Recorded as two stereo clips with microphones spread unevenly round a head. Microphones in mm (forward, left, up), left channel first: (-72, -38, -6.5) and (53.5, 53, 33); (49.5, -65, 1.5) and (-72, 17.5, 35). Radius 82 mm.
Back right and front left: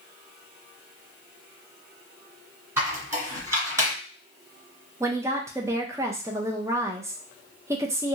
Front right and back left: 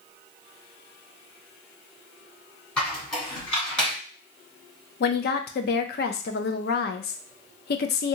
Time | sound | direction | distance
2.8 | a squeak | 65° left | 1.6 m
5.0 | a woman speaking | 40° right | 0.5 m